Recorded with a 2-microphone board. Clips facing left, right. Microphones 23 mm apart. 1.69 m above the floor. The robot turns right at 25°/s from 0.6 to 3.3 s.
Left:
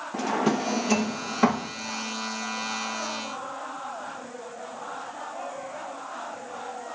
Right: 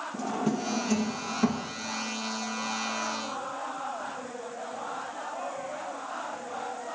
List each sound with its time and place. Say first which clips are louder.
0.1 s a drawer: left 6 dB; 40° left (ahead or behind), 1.1 m